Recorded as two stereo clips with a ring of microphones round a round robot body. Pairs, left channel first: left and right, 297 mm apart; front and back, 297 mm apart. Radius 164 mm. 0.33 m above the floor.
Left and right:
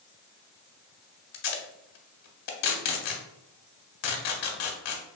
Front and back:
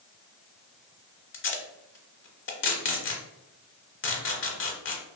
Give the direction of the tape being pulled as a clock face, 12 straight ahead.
10 o'clock.